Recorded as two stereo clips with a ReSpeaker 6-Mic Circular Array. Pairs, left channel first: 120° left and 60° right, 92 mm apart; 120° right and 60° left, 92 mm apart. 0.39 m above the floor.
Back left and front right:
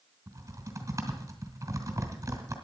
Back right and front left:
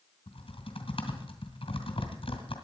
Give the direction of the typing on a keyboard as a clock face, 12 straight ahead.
4 o'clock.